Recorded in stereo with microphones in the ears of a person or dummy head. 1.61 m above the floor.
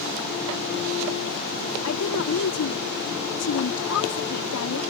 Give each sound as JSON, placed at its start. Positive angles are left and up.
{"t": 1.8, "sound": "a woman speaking", "side_deg": 85}